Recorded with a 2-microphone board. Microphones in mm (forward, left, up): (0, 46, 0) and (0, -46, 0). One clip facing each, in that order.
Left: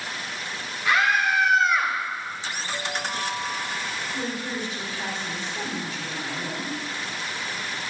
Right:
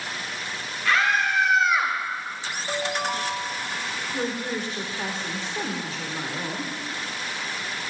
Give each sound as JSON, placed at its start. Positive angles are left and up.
{"t": 0.8, "sound": "a scream", "side_deg": 15, "distance_m": 2.5}
{"t": 2.7, "sound": "a ringtone", "side_deg": -65, "distance_m": 1.6}
{"t": 4.1, "sound": "a woman speaking", "side_deg": -40, "distance_m": 2.5}